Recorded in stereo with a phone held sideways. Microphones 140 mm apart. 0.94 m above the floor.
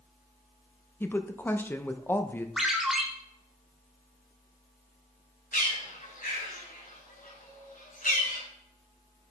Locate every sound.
1.0 s a woman speaking: 15° left (ahead or behind), 0.7 m
2.6 s a ringtone: centre (ahead or behind), 1.5 m
5.5 s a bird: 75° left (ahead or behind), 2.5 m